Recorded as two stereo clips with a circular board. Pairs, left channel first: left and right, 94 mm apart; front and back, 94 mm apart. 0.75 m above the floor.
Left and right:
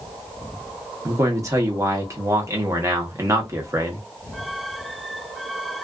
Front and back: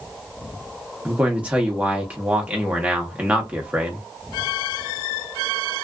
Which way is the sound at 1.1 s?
115° right.